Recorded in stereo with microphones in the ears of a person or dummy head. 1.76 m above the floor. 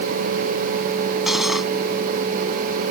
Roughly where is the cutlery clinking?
Centre.